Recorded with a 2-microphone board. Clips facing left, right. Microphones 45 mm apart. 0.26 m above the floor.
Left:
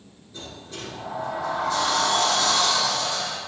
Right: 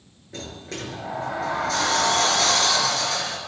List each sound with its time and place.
0.3 s a sliding door: 75° right (ahead or behind), 3 m